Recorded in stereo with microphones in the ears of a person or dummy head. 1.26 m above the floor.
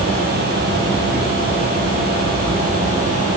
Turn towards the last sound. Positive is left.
No sound to turn to.